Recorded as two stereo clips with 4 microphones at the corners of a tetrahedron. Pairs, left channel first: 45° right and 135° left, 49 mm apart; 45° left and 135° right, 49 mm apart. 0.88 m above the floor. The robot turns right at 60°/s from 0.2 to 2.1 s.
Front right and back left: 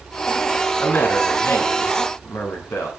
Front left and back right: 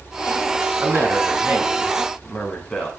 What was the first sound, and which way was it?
A woman speaking, 110° right.